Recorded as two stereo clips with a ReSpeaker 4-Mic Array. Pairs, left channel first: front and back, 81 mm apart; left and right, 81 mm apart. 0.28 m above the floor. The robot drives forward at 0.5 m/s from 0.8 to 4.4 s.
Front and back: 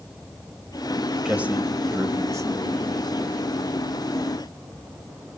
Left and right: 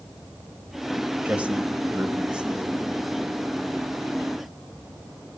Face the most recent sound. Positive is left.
turn(degrees=-170)